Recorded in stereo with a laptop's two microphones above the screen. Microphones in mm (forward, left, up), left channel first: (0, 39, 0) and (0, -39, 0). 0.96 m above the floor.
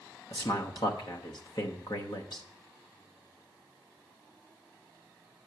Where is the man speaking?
60° left (ahead or behind), 0.9 m.